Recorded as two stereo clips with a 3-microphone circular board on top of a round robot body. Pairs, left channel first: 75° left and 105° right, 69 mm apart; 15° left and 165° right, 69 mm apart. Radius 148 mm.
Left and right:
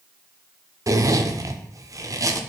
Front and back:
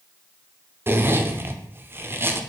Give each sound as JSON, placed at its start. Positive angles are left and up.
{"t": 0.9, "sound": "a zipper", "azimuth_deg": -120, "distance_m": 0.9}